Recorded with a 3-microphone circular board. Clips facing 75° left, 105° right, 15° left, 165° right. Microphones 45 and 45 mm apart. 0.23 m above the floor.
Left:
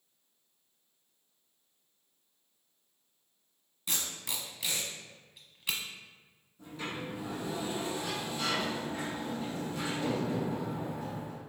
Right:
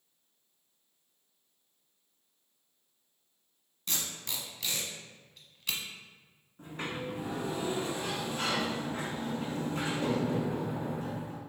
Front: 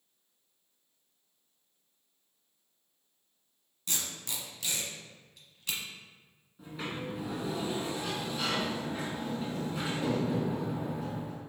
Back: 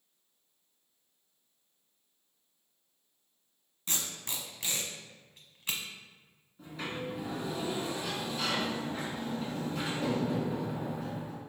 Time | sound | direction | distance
3.9 | tape being pulled | 145° left | 0.9 m
6.6 | a sliding door | 65° right | 1.2 m